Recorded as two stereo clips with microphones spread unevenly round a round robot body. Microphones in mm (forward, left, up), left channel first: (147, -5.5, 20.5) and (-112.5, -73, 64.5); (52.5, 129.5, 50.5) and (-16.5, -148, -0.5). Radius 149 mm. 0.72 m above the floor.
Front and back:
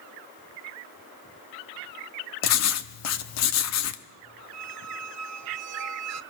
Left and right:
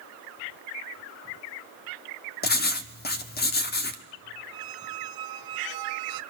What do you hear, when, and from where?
2.4 s writing: 15° left, 1.3 m
4.5 s a squeak: 135° right, 1.0 m